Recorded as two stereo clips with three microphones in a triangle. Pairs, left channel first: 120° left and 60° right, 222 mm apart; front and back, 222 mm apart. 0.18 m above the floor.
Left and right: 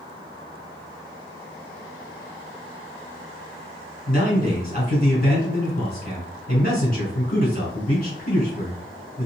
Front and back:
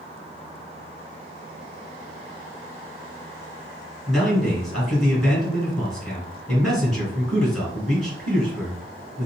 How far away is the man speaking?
About 1.9 m.